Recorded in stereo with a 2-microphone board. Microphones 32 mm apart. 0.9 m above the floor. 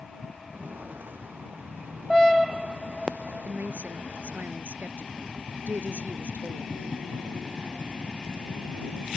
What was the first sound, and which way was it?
Footsteps, 80° right.